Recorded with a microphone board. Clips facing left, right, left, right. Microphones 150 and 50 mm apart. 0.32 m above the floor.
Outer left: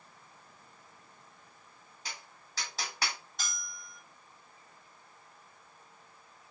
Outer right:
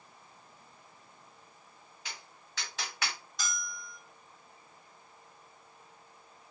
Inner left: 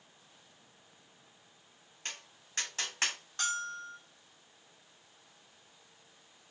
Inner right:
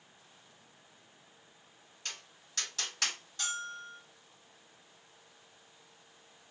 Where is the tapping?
35° left (ahead or behind), 2.5 m.